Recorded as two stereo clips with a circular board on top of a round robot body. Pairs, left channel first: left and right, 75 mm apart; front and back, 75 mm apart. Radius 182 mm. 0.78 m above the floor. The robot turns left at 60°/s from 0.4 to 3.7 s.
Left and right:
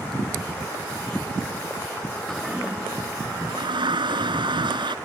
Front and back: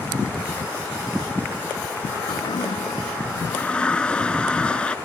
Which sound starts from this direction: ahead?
A toilet flushing, at 2.3 s.